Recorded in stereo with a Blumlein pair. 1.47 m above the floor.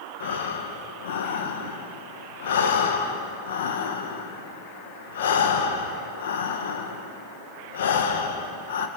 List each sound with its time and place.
0.2 s breathing: 60° left, 1.8 m